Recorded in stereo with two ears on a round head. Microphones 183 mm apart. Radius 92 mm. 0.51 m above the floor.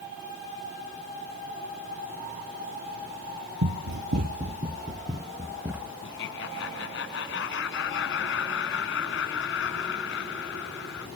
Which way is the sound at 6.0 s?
65° left (ahead or behind).